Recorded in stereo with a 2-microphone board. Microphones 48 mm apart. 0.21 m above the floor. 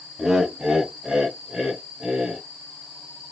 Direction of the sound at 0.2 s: 15° right (ahead or behind).